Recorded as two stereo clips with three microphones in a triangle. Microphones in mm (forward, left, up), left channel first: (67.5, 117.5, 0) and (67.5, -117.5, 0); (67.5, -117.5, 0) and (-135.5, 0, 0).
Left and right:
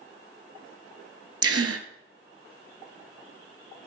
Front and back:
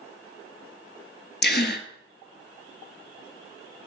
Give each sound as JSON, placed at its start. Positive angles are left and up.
{"t": 1.4, "sound": "a gasp", "azimuth_deg": -80, "distance_m": 0.7}